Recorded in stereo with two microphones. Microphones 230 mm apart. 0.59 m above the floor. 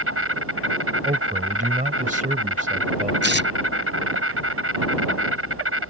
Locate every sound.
0.0 s an insect: 70° right (ahead or behind)
1.1 s a man speaking: 35° right (ahead or behind)
3.2 s tearing paper: 50° left (ahead or behind)